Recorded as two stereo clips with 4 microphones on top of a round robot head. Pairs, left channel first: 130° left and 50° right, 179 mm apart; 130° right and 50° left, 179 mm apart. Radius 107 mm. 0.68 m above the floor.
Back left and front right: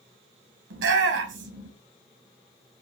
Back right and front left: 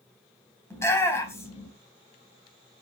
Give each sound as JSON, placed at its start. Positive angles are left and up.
{"t": 0.7, "sound": "a shout", "azimuth_deg": -55, "distance_m": 4.5}